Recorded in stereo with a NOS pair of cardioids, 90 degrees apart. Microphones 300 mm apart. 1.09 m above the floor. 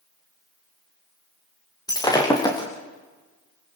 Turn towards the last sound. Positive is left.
turn(degrees=10)